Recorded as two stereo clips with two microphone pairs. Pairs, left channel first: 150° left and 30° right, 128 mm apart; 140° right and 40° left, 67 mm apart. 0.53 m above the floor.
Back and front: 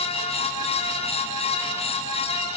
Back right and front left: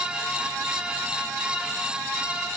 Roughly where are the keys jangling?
I don't hear keys jangling.